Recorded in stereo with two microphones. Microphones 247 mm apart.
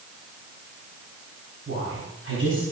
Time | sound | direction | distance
1.7 | a woman speaking | 55° right (ahead or behind) | 4.5 m